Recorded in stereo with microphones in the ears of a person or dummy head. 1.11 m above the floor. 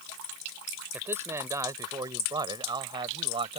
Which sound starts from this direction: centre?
A man speaking, at 0.9 s.